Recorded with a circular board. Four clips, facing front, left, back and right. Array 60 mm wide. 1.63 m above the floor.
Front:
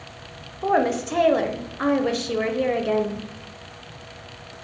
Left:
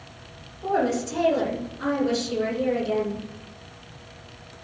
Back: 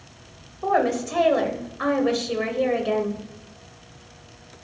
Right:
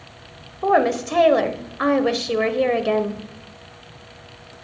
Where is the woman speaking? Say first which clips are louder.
Right 6 dB, front 1 dB; 80° right, 1.2 m.